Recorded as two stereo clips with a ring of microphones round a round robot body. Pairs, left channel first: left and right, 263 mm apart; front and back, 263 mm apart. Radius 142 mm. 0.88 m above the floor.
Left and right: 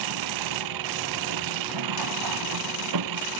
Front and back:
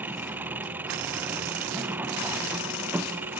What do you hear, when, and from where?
0.0 s an engine running: 95° right